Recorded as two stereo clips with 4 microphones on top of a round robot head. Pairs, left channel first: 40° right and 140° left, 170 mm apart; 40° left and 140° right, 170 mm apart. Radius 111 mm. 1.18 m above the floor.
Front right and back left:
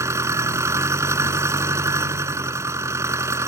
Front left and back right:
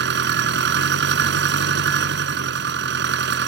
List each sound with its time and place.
0.0 s an engine running: 150° right